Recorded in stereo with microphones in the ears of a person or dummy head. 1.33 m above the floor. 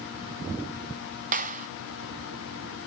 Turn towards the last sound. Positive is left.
turn(degrees=-40)  # may be behind; listen again after turning